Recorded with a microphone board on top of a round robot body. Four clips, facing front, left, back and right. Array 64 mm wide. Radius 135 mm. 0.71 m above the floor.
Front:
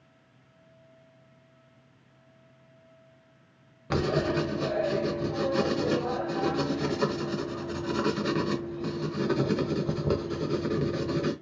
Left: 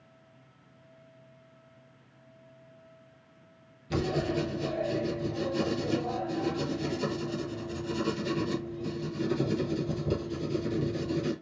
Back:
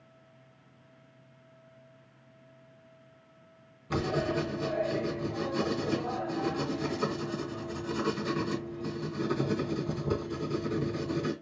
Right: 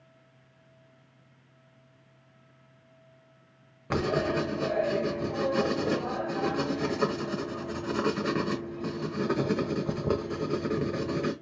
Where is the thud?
I don't hear a thud.